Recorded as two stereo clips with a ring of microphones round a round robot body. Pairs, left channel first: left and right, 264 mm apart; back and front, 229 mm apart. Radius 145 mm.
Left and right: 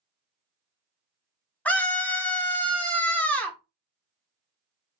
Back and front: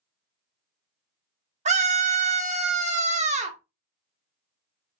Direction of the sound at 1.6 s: 10° left.